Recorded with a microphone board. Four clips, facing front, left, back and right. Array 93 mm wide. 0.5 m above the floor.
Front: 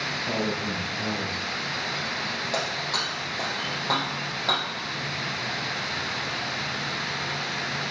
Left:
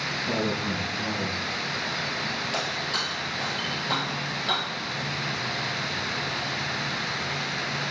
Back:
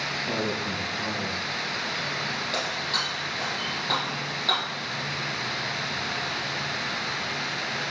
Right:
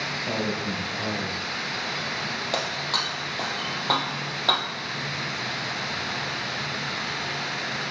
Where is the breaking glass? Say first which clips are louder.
Right 1 dB, front 3 dB; 80° right, 2 m.